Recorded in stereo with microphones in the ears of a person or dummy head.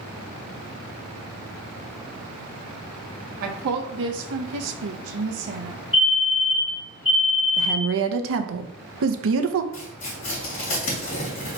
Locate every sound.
3.4 s a woman speaking: 45° right (ahead or behind), 1.0 m
5.9 s a fire alarm: 65° left (ahead or behind), 2.5 m
7.6 s a woman speaking: 70° right (ahead or behind), 0.6 m
9.7 s tearing paper: 40° left (ahead or behind), 2.5 m